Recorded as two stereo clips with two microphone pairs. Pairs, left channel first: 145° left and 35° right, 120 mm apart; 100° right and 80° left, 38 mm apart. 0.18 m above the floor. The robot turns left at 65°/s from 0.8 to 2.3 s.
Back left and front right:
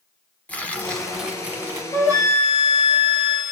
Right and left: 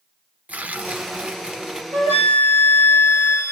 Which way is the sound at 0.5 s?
70° left.